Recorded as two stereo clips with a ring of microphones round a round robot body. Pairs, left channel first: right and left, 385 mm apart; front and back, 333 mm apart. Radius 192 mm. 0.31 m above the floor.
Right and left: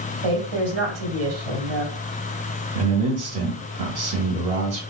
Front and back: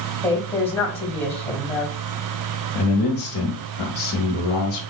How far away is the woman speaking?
About 2 m.